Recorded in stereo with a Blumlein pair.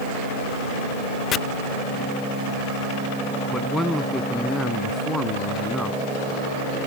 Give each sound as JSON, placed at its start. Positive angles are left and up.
{"t": 1.3, "sound": "chopping", "azimuth_deg": 30}
{"t": 3.5, "sound": "a man speaking", "azimuth_deg": 5}